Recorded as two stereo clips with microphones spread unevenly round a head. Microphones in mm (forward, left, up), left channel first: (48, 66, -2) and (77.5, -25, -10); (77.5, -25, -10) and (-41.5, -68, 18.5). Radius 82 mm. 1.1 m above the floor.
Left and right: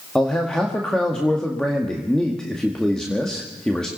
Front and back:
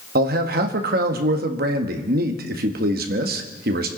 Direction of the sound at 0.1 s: 165° right.